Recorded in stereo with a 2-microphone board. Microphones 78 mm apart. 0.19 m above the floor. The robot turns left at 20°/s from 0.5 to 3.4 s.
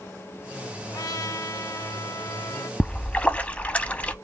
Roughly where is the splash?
Centre.